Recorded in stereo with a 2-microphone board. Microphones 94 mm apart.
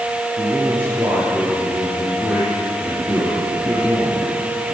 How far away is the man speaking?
About 10 m.